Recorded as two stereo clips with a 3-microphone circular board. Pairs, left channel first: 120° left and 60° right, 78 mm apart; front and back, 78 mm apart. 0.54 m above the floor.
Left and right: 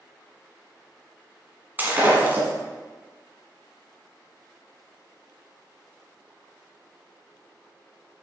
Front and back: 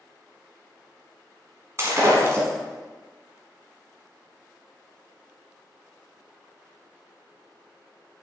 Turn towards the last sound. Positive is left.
turn(degrees=-125)